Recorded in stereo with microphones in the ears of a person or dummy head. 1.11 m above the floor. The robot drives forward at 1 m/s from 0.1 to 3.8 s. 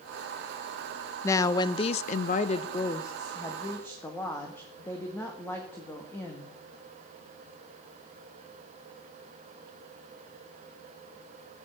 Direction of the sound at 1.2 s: 15° left (ahead or behind).